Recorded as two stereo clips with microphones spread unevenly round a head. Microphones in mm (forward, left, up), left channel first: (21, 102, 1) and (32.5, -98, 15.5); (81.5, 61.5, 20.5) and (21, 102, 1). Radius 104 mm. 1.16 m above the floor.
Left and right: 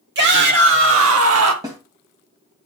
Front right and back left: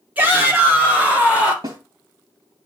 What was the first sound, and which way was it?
A shout, 130° right.